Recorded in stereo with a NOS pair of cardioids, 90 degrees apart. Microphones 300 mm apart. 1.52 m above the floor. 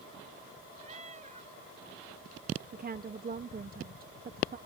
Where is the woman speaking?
30° right.